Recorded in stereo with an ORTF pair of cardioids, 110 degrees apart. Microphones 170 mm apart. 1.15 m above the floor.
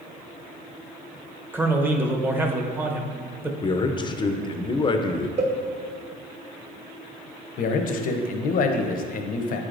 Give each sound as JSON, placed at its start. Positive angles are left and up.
{"t": 1.5, "sound": "a man speaking", "azimuth_deg": -15, "distance_m": 0.8}
{"t": 3.6, "sound": "a man speaking", "azimuth_deg": 30, "distance_m": 0.6}
{"t": 5.4, "sound": "a cowbell", "azimuth_deg": -40, "distance_m": 1.2}
{"t": 7.6, "sound": "a man speaking", "azimuth_deg": 55, "distance_m": 0.7}